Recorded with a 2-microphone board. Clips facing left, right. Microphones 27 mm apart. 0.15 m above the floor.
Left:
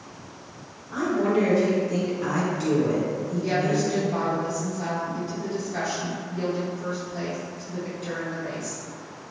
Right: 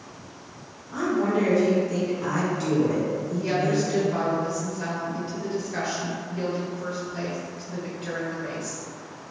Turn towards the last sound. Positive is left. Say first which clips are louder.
# even
turn(degrees=-60)  # may be behind; listen again after turning